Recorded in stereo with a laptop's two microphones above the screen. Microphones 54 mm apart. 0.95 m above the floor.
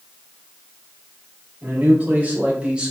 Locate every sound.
1.6 s a man speaking: 35° right (ahead or behind), 3.5 m; by 2.9 s 15° right (ahead or behind), 2 m